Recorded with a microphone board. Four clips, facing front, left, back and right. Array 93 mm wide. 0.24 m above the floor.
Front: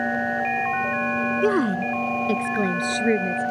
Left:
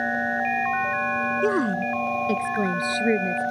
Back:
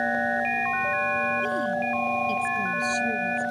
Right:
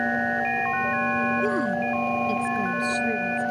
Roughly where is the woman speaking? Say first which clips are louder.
Left 1 dB, front 5 dB; ahead.